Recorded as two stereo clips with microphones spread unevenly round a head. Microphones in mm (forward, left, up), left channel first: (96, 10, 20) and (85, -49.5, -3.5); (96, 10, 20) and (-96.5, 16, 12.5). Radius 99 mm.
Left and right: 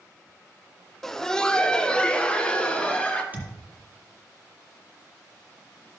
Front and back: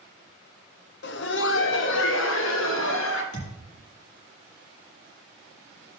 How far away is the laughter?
About 0.7 m.